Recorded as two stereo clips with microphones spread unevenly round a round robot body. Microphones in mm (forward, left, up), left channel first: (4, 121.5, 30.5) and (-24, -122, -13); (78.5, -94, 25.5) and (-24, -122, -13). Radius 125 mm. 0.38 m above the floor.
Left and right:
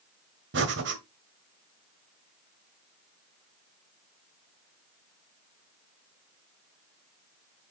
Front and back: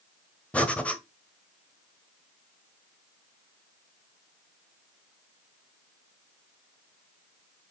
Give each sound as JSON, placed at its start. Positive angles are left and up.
{"t": 0.5, "sound": "breathing", "azimuth_deg": -75, "distance_m": 1.5}